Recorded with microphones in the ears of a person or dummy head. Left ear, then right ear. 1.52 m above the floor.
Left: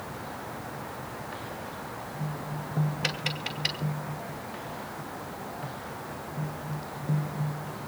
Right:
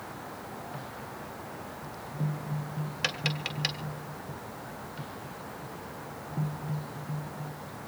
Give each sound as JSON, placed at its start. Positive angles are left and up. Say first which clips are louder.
{"t": 3.0, "sound": "tapping", "louder": "right 2 dB", "side_deg": -60, "distance_m": 2.5}